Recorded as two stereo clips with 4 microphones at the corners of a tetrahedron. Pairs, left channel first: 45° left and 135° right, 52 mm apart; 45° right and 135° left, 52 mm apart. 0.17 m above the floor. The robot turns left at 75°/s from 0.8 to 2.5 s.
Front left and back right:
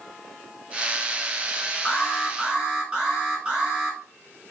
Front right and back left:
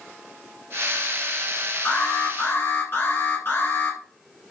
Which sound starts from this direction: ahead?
An alarm, at 1.9 s.